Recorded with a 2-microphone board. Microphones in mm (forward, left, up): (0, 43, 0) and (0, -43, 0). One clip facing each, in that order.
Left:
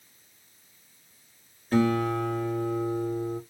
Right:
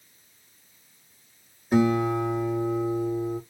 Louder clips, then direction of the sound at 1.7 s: Right 2 dB; 15° right (ahead or behind).